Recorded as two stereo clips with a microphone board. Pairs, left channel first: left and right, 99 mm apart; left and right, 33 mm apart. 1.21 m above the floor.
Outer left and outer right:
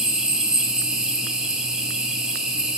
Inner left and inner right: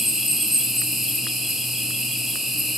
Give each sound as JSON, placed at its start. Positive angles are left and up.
{"t": 0.0, "sound": "an insect", "side_deg": -5, "distance_m": 1.3}